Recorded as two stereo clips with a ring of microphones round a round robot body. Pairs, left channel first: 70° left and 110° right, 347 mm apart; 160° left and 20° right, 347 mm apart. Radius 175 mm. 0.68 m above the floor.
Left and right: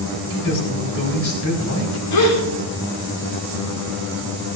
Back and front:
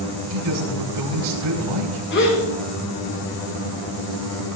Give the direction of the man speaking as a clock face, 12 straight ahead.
12 o'clock.